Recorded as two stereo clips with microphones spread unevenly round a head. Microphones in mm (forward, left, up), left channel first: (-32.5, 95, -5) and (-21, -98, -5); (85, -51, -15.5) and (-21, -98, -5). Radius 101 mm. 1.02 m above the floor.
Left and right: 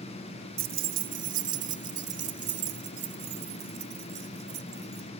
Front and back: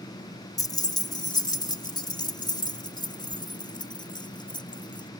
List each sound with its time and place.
0.6 s keys jangling: 40° right; by 5.1 s 30° right